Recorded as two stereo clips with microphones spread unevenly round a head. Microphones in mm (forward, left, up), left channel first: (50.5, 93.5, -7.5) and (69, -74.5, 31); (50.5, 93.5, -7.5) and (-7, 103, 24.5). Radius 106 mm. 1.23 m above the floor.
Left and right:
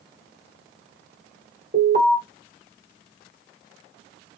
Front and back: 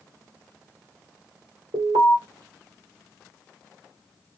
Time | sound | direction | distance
1.7 | an alarm | 135° right | 1.4 m